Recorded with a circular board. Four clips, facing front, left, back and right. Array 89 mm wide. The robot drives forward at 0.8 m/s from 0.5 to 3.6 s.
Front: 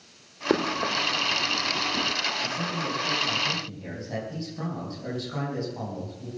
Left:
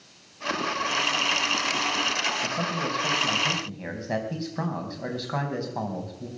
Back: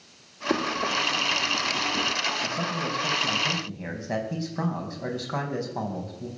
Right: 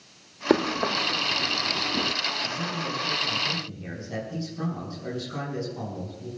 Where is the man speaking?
115° left, 3.5 m; by 6.3 s 125° left, 4 m.